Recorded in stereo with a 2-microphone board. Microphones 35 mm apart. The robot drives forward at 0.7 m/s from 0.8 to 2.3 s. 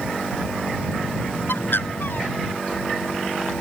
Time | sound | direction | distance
1.5 | a bird | 75° left (ahead or behind) | ?